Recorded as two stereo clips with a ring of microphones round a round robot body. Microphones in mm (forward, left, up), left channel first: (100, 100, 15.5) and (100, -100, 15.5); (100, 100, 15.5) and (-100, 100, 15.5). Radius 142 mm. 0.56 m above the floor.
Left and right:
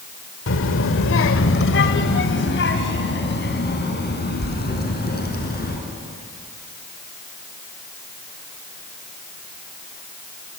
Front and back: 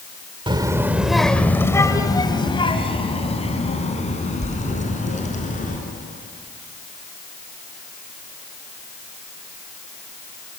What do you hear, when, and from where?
0.5 s a child speaking: 115° left, 1.6 m; by 5.8 s 50° left, 6.5 m